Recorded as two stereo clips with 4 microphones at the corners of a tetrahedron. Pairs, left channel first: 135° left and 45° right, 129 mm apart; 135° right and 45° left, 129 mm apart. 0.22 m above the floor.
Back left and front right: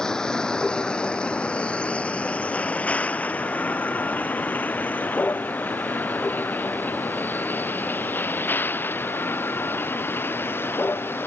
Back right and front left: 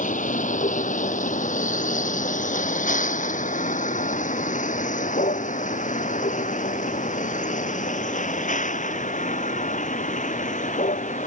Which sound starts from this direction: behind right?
A vehicle, at 0.0 s.